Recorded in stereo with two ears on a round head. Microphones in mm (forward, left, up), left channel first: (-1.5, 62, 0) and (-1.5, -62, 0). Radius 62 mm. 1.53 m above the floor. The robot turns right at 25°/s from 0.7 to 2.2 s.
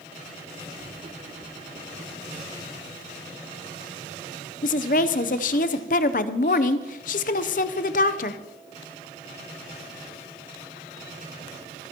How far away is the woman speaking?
About 0.7 m.